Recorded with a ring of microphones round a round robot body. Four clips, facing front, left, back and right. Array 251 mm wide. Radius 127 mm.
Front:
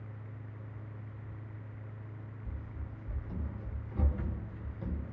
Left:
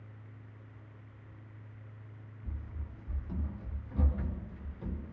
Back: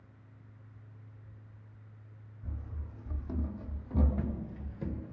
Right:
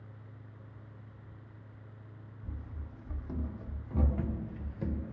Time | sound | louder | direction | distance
2.4 | running footsteps | right 1 dB, front 1 dB | 155° right | 1.6 m